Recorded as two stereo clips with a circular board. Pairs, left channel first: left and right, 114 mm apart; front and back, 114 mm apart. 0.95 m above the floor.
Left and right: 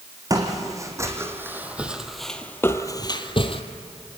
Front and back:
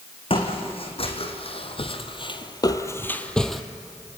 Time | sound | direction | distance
0.3 | footsteps | 30° right | 3 m